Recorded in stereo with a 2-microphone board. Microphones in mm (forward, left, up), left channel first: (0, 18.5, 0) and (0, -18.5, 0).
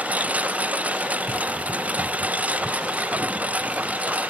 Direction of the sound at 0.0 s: 40° right (ahead or behind).